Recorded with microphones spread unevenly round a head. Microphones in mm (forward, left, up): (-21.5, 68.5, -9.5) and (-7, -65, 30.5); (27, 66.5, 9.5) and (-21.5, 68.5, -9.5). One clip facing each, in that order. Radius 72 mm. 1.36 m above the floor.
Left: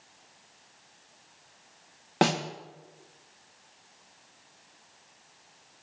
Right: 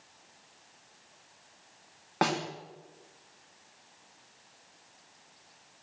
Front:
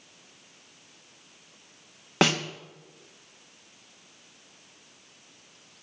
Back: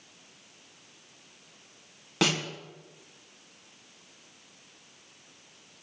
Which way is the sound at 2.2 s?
40° left.